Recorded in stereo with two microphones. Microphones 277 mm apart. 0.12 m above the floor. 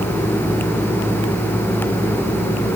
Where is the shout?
I don't hear a shout.